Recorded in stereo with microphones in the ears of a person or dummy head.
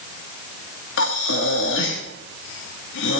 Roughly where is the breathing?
Left.